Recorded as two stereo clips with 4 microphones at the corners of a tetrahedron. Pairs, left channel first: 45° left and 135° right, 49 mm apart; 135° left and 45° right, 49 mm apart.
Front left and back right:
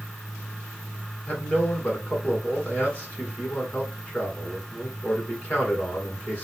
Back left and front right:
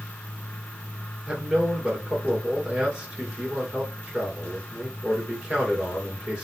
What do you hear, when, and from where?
1.3 s a man speaking: 15° left, 1.8 m